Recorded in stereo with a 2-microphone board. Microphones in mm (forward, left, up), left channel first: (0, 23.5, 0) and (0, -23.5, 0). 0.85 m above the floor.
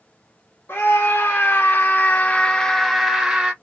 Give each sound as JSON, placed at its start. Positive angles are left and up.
{"t": 0.7, "sound": "a scream", "side_deg": 55, "distance_m": 1.0}